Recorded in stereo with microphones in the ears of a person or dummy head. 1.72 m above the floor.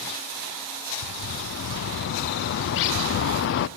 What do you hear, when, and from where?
1.0 s a bird: 60° left (ahead or behind), 0.5 m